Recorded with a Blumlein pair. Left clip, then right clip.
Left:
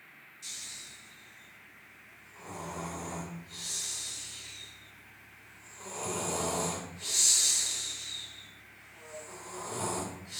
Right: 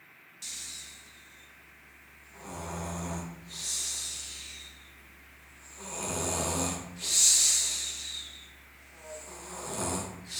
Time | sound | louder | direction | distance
0.4 | snoring | right 2 dB | 50° right | 0.8 m